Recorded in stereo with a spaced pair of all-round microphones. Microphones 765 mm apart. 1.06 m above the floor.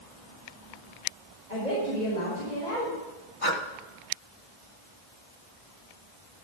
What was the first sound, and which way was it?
A woman speaking, 75° left (ahead or behind).